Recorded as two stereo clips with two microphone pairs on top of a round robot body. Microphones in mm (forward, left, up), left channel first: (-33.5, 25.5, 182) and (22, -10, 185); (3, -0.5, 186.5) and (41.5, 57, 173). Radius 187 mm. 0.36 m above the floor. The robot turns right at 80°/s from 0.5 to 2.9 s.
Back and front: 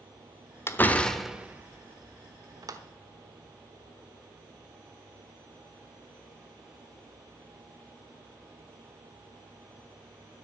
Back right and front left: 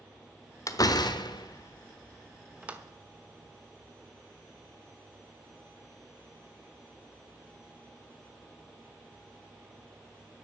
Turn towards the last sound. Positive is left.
turn(degrees=10)